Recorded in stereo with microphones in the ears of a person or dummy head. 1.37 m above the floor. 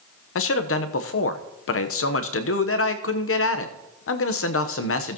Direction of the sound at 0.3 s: 70° left (ahead or behind).